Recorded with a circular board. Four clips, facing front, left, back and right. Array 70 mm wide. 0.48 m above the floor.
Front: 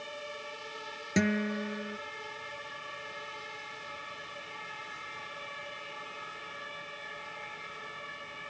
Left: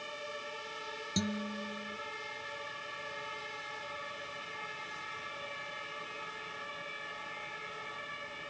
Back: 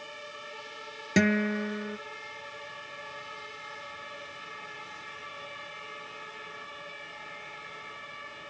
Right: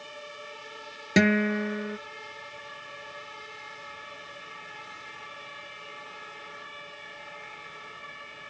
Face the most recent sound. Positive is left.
turn(degrees=-110)